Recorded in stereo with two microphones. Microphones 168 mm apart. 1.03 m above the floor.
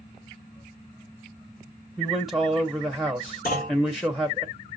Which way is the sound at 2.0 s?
Centre (ahead or behind).